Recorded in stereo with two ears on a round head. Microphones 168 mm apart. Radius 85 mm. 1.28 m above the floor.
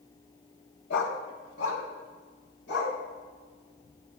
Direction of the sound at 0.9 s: 65° left (ahead or behind).